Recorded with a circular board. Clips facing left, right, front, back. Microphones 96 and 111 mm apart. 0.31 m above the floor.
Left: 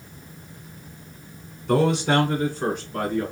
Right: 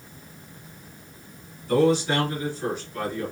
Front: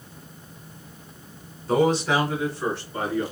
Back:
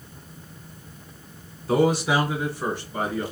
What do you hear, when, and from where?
1.7 s a man speaking: 95° left, 2.5 m; by 3.3 s 110° left, 3 m